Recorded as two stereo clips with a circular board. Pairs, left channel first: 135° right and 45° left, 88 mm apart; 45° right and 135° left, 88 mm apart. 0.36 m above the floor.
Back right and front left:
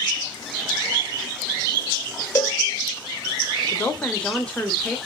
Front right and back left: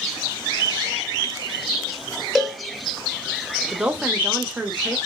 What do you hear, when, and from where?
2.4 s a cowbell: 140° right, 1.1 m
3.7 s a woman speaking: 170° left, 0.9 m